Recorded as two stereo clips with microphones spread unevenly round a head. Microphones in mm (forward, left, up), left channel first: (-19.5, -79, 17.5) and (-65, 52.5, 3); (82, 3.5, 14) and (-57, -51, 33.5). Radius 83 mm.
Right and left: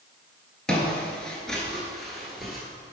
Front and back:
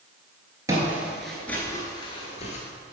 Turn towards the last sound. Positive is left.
turn(degrees=10)